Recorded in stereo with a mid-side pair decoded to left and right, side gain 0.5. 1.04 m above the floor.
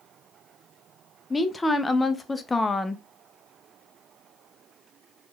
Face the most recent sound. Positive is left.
turn(degrees=20)